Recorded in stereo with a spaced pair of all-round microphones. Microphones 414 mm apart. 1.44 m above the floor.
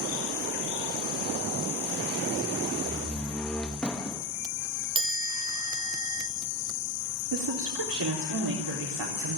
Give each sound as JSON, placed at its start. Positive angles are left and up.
{"t": 2.8, "sound": "a door slam", "side_deg": 5, "distance_m": 1.3}
{"t": 5.0, "sound": "a chime", "side_deg": -10, "distance_m": 1.3}
{"t": 7.3, "sound": "a woman speaking", "side_deg": -75, "distance_m": 4.0}